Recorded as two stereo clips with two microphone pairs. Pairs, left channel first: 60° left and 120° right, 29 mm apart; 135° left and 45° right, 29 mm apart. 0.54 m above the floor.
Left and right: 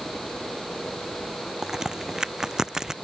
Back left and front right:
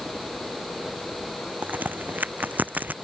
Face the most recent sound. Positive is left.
turn(degrees=-50)